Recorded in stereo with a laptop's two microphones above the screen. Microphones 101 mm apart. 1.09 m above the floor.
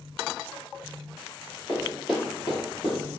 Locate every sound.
1.7 s running footsteps: 15° right (ahead or behind), 1.8 m; by 3.0 s centre (ahead or behind), 1.3 m